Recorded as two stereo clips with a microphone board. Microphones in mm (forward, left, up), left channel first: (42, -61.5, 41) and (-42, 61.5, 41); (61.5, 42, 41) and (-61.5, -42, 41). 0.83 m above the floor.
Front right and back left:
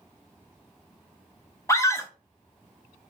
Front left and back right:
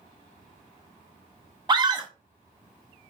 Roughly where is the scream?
Right.